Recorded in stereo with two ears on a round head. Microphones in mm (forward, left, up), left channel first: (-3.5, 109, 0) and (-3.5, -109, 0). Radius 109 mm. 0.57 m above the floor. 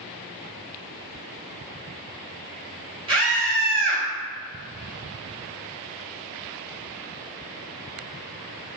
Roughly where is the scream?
Right.